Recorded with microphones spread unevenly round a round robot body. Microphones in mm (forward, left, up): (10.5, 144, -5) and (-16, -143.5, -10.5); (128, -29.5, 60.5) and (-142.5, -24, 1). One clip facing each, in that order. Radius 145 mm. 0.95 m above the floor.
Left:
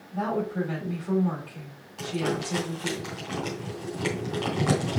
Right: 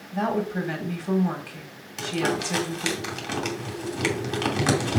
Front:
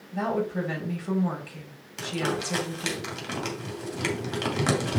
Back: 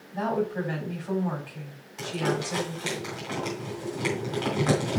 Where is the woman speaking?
55° right, 3.5 m.